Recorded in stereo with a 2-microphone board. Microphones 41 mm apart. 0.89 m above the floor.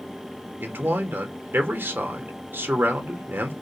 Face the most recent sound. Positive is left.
turn(degrees=-65)  # may be behind; listen again after turning